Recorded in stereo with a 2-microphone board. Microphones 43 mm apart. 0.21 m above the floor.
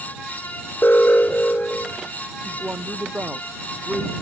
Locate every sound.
0.8 s an alarm: 55° left (ahead or behind)
2.5 s a woman speaking: 35° right (ahead or behind)